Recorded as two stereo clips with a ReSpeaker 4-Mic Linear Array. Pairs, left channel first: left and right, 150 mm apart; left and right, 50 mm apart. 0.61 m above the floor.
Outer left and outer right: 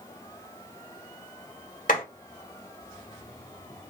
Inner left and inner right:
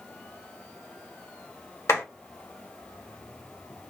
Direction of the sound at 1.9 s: 65° left (ahead or behind).